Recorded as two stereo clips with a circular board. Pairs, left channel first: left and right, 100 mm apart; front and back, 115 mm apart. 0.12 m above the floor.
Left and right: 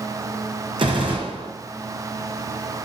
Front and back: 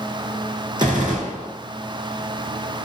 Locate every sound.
0.8 s a gunshot: 130° right, 2 m